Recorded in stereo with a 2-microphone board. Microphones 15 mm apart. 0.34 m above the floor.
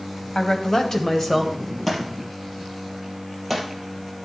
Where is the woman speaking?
45° left (ahead or behind), 1.6 m; by 1.8 s 10° left (ahead or behind), 1.6 m.